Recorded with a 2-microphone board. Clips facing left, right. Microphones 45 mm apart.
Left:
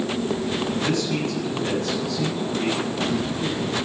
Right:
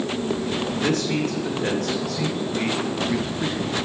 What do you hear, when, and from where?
0.8 s a man speaking: 70° right (ahead or behind), 4 m; by 3.8 s 65° right (ahead or behind), 4 m